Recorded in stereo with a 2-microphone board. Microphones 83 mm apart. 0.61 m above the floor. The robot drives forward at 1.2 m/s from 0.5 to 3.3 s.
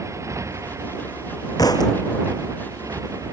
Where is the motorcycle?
40° right (ahead or behind).